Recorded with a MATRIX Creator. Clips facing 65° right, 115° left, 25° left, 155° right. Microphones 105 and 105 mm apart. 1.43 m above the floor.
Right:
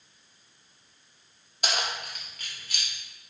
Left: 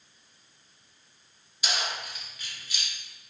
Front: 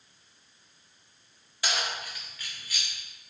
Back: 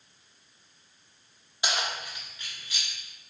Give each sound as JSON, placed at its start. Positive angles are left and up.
{"t": 1.6, "sound": "keys jangling", "azimuth_deg": -90, "distance_m": 1.7}